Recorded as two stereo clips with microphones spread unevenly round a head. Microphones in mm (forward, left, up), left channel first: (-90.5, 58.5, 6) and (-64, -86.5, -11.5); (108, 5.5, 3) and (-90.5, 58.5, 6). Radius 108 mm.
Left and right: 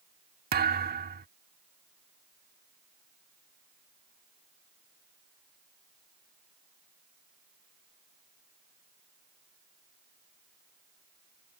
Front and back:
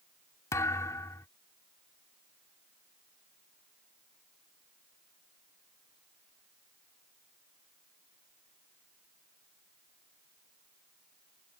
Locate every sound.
0.5 s a thud: 90° right